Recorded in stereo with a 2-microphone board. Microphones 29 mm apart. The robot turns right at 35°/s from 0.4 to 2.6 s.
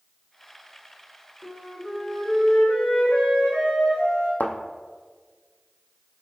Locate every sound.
1.4 s a flute: 75° left, 1.8 m; by 4.3 s 115° left, 1.8 m
4.4 s a thud: 75° left (ahead or behind), 0.5 m